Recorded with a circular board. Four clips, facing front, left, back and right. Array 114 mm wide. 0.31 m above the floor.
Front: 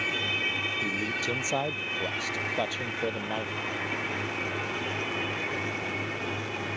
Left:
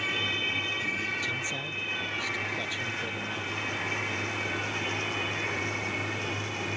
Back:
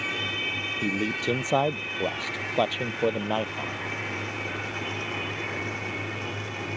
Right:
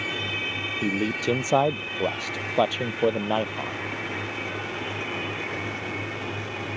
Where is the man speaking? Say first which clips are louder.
Right 10 dB, back 7 dB; 110° right.